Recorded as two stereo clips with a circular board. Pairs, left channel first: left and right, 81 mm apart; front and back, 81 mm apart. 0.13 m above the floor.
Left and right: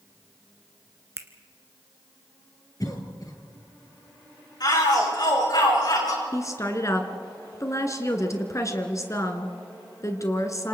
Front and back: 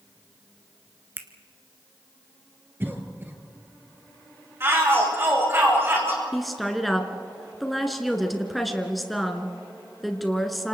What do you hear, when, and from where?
1.2 s a finger snap: 130° right, 1.5 m
2.8 s a cough: 120° left, 3 m
4.6 s a shout: 120° left, 8 m
6.3 s a woman speaking: 90° left, 2 m